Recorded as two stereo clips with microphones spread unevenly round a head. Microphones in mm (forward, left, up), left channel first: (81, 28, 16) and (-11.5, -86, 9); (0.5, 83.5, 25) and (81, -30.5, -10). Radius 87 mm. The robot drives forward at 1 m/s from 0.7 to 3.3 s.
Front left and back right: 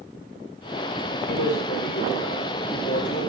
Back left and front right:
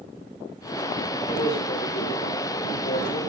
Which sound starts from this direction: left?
A man speaking, at 1.3 s.